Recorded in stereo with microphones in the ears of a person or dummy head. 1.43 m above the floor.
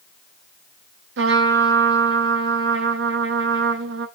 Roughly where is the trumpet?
Right.